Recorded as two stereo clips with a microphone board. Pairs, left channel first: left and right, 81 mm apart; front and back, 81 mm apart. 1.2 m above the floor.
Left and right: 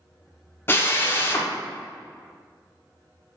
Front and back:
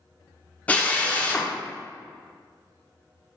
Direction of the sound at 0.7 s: 55° left.